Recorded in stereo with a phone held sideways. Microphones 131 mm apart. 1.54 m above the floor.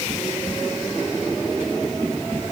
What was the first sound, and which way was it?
Only background noise.